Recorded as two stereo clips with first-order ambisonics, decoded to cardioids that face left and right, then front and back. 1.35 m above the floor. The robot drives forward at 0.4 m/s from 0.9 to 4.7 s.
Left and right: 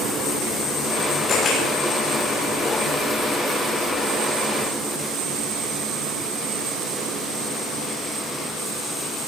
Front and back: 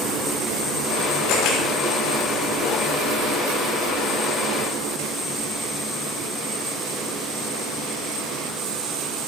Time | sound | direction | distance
1.3 | a camera shutter | 25° left | 7 m